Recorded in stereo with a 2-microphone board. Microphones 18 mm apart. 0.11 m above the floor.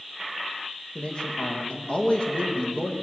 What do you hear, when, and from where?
0.9 s a man speaking: 55° left (ahead or behind), 5.5 m